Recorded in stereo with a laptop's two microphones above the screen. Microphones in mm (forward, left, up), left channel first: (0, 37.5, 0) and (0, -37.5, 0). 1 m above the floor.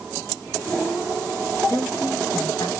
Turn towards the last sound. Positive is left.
turn(degrees=55)  # may be behind; listen again after turning